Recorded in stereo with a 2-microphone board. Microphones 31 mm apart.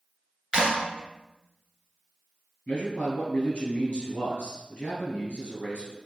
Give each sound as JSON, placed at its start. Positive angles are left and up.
{"t": 0.5, "sound": "a clap", "side_deg": -25, "distance_m": 0.9}
{"t": 2.7, "sound": "a man speaking", "side_deg": 30, "distance_m": 1.4}